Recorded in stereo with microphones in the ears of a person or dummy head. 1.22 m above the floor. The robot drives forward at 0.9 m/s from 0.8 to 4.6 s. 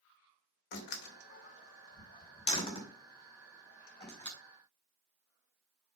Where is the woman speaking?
I don't hear a woman speaking.